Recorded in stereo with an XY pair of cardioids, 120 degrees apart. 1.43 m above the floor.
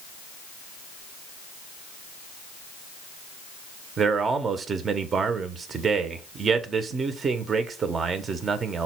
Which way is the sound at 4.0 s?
35° right.